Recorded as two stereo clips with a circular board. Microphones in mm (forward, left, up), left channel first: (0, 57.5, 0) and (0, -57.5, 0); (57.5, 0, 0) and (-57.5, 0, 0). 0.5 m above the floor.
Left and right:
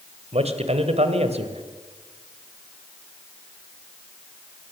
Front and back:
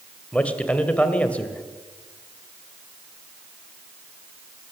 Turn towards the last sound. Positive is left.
turn(degrees=-80)